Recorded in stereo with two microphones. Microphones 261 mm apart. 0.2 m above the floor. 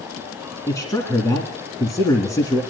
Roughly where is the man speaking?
Centre.